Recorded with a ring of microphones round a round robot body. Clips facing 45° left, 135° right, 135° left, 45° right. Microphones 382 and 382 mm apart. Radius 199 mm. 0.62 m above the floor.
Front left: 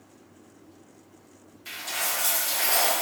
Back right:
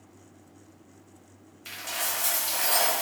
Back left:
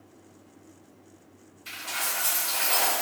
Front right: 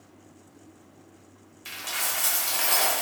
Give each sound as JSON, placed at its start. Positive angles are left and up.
{"t": 1.6, "sound": "a dropped coin", "azimuth_deg": -65, "distance_m": 1.1}